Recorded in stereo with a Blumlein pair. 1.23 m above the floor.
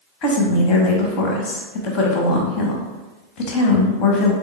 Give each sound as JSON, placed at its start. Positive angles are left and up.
{"t": 0.2, "sound": "a woman speaking", "azimuth_deg": 40, "distance_m": 0.8}